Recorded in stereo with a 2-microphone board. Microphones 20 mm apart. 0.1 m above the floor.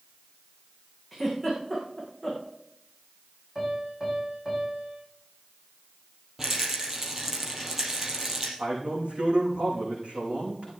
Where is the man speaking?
75° right (ahead or behind), 6 m.